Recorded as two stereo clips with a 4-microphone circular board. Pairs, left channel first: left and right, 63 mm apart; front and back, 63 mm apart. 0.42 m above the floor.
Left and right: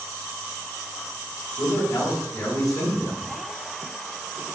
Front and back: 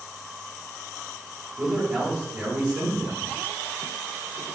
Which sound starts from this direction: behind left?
A man speaking, at 1.6 s.